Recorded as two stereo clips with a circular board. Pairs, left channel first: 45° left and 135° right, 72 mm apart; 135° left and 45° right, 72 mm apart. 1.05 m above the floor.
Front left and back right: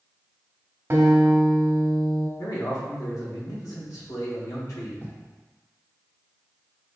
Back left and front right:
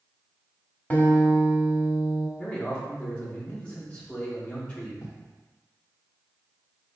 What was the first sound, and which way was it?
A guitar, 165° right.